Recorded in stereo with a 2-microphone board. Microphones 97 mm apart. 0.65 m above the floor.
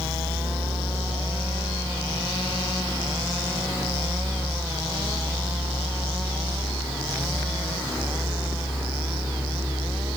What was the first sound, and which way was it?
Only background noise.